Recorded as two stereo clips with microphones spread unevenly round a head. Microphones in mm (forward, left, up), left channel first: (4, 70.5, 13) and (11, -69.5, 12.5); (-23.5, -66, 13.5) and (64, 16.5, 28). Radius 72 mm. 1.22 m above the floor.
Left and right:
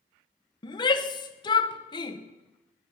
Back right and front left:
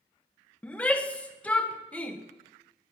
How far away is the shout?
About 1.1 m.